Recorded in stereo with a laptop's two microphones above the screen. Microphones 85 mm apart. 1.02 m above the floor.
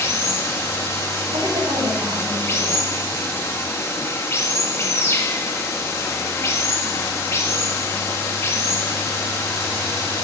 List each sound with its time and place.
0.0 s running water: 35° left (ahead or behind), 1.4 m
1.3 s a woman speaking: 85° right, 6 m